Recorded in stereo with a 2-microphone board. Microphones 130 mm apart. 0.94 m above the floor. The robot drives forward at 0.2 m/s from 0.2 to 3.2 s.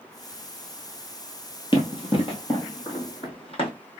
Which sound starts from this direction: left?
Running footsteps, at 1.7 s.